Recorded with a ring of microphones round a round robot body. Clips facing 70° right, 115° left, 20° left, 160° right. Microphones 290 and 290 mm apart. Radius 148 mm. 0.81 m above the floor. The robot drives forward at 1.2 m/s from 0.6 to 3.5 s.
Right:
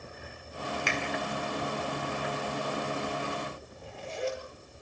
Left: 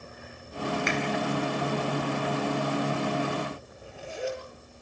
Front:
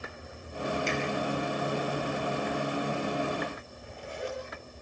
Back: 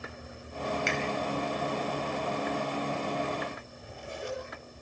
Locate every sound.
0.9 s a finger snap: 125° right, 4 m
3.7 s a zipper: 160° right, 9.5 m